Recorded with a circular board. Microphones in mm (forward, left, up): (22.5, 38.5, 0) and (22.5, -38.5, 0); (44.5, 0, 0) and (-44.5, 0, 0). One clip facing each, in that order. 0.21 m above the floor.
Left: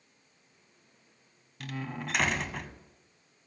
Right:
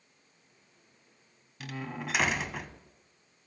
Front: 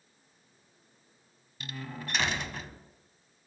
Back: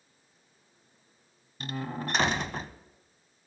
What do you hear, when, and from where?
1.6 s a door slam: 175° right, 0.8 m